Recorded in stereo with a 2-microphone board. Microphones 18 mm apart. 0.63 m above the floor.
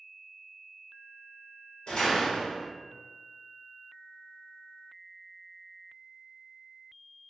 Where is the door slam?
65° left (ahead or behind), 1.2 m.